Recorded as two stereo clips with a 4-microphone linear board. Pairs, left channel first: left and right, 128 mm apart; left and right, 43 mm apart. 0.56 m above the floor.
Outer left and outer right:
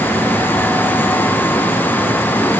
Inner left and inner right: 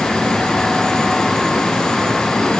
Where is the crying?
I don't hear crying.